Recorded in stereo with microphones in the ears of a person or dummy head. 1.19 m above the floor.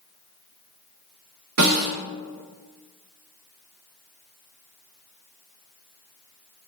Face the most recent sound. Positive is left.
turn(degrees=-80)